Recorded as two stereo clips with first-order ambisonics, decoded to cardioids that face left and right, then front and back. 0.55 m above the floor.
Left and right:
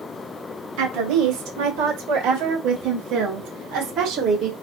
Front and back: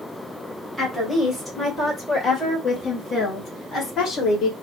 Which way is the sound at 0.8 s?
85° right.